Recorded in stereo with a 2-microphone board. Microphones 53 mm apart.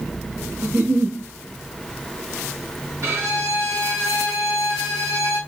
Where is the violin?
60° right (ahead or behind), 1.7 m.